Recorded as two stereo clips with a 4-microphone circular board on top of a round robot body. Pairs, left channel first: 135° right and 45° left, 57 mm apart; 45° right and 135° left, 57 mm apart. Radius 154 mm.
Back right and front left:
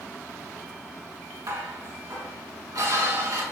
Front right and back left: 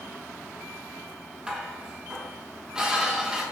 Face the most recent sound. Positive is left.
turn(degrees=60)